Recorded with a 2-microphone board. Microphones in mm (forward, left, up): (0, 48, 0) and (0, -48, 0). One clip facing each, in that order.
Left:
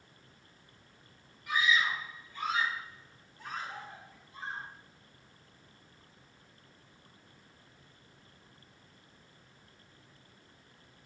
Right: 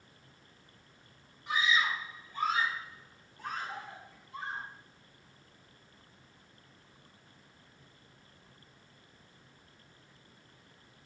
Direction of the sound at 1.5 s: 30° right (ahead or behind).